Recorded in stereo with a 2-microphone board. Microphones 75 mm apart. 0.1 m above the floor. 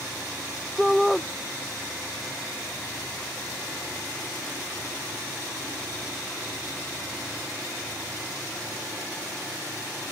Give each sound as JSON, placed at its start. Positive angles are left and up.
{"t": 0.8, "sound": "a shout", "side_deg": 0}